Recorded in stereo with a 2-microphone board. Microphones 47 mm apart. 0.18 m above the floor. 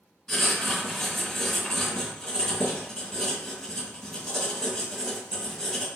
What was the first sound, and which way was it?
Writing, 5° left (ahead or behind).